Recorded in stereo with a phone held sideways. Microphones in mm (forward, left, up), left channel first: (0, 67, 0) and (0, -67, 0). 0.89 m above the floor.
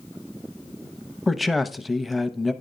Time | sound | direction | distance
1.3 | a man speaking | centre (ahead or behind) | 0.8 m